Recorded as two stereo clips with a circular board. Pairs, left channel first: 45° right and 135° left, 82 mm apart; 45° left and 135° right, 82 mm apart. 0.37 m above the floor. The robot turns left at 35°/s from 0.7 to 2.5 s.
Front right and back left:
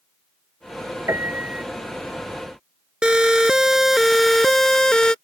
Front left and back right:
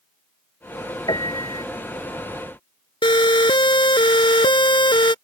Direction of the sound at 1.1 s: 80° left.